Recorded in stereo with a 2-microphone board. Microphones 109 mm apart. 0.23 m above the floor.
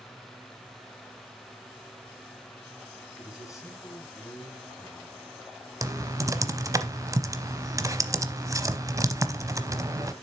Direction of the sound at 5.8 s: 30° right (ahead or behind).